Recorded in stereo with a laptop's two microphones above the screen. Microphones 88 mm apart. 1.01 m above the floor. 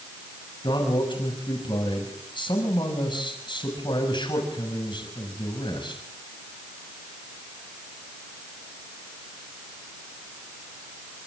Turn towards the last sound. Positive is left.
turn(degrees=65)  # may be behind; listen again after turning